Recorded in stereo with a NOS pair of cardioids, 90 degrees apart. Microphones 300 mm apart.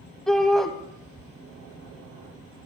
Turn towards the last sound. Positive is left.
turn(degrees=0)